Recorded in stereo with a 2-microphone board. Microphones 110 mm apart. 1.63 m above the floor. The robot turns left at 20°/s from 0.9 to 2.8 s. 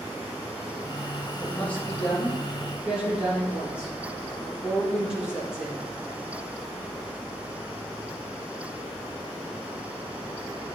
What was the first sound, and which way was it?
A woman speaking, 20° left (ahead or behind).